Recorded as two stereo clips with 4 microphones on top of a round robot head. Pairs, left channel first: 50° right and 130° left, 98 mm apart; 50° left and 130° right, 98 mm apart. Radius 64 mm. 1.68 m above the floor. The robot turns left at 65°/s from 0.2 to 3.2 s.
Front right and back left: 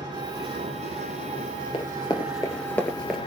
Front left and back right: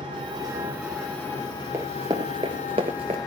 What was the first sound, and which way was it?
An engine running, 175° right.